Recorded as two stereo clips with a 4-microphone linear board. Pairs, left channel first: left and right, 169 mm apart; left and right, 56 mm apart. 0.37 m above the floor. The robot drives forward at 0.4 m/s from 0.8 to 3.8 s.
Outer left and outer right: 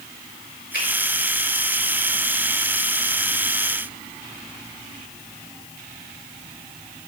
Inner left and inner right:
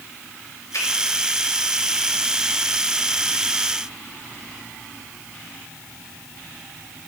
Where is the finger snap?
70° left (ahead or behind), 5.5 m.